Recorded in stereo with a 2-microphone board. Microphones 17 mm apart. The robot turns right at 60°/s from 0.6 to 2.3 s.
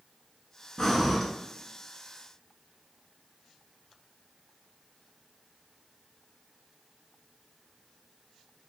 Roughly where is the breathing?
Left.